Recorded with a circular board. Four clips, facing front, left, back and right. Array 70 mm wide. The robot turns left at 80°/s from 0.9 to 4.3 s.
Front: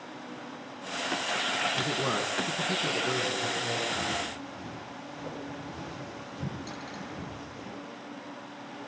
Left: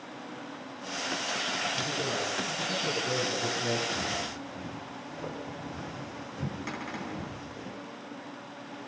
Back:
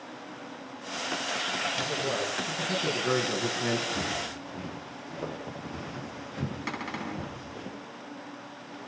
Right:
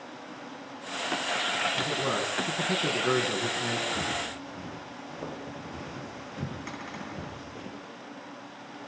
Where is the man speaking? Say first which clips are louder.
Right 3 dB, front 1 dB; 10° right, 4.5 m; by 3.9 s 175° right, 4.5 m.